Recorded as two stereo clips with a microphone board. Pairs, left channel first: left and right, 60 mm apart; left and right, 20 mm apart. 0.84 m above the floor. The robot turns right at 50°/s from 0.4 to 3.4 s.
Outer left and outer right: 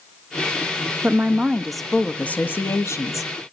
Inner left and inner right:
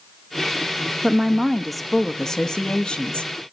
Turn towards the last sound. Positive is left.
turn(degrees=85)